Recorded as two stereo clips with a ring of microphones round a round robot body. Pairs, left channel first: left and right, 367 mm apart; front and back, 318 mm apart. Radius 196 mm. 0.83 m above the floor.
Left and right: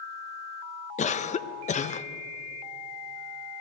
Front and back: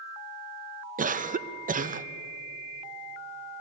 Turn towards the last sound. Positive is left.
turn(degrees=140)